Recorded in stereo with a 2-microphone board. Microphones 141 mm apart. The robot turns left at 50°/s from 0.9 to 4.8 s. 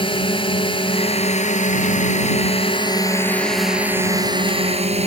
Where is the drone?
135° left; by 5.1 s 60° right.